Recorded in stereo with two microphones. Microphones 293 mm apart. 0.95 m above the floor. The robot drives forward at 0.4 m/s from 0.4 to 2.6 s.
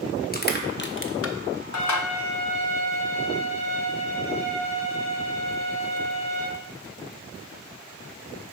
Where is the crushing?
30° left (ahead or behind), 0.8 m; by 2.1 s 80° left, 0.5 m.